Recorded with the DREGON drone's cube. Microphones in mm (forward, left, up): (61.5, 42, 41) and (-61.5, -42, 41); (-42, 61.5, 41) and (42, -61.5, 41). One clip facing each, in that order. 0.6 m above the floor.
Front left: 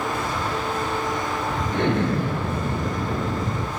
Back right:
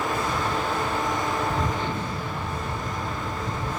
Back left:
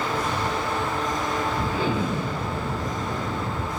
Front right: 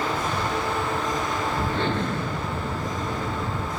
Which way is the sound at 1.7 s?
40° left.